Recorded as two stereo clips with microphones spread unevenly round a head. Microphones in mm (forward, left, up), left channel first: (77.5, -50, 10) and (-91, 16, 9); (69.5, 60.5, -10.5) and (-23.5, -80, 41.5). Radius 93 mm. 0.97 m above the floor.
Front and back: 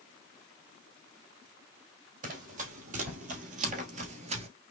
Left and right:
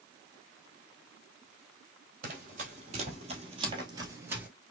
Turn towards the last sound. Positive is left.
turn(degrees=-175)